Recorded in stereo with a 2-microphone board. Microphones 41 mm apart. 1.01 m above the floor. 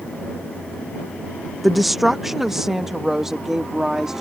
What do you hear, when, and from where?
1.6 s a woman speaking: centre (ahead or behind); by 4.2 s 10° right (ahead or behind)